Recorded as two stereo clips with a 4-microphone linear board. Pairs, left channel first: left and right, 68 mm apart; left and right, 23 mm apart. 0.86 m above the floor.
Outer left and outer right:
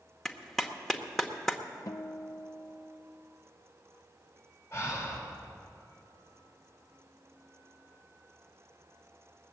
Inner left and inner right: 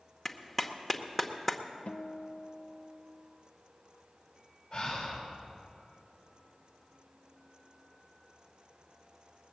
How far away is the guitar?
About 0.5 m.